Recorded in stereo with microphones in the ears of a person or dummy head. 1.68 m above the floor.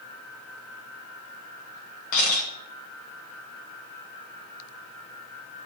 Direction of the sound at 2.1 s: 40° left (ahead or behind).